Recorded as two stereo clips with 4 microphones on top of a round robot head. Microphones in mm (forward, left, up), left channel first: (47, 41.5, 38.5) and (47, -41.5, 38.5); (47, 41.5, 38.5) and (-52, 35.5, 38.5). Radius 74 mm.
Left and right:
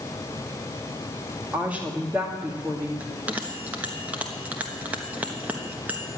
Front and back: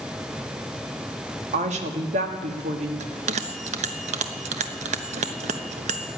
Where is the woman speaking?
170° right, 1.8 m.